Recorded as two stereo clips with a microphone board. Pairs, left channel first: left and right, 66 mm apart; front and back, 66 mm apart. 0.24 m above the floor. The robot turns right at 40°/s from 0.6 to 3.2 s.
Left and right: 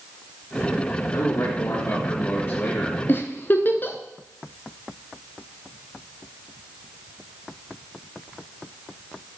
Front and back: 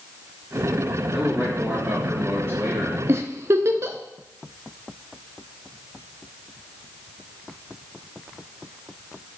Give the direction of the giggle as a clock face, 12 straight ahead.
7 o'clock.